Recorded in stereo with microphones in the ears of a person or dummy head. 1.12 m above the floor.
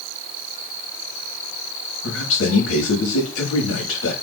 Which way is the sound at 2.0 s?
85° left.